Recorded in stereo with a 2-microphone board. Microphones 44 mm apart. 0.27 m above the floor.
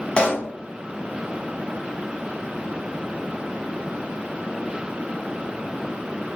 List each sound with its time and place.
0.2 s a pop: 25° left (ahead or behind), 1.5 m